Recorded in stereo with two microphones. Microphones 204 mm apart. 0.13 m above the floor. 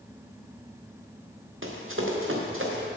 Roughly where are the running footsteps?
Right.